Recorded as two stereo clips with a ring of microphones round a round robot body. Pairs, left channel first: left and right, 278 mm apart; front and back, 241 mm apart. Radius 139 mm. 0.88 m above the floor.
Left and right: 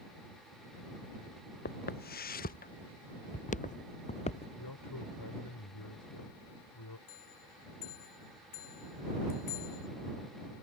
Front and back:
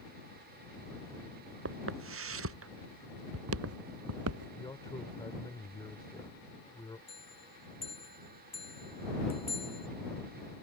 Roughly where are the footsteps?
Behind left.